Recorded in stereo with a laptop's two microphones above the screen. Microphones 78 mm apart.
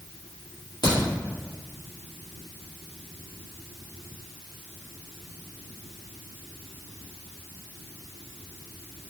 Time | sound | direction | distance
0.8 | a crack | 60° left (ahead or behind) | 2.0 m